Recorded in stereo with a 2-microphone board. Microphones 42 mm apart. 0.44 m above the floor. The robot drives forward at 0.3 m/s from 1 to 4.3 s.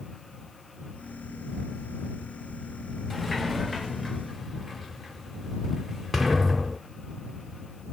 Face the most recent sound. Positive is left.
turn(degrees=0)  # may be behind; listen again after turning